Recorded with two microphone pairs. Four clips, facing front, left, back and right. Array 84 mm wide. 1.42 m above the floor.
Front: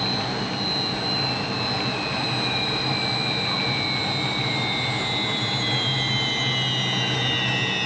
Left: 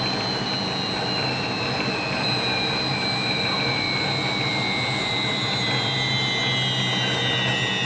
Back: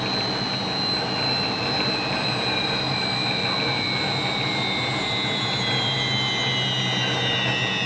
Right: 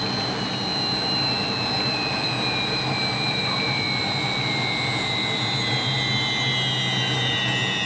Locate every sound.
Only background noise.